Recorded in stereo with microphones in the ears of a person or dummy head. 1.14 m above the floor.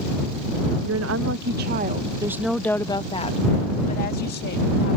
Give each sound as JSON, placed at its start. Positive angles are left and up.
{"t": 0.8, "sound": "a woman speaking", "side_deg": -75}